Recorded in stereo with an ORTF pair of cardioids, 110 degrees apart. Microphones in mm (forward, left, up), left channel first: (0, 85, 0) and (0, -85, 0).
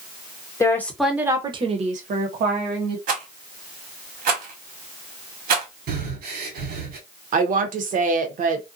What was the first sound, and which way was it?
A woman speaking, 20° left.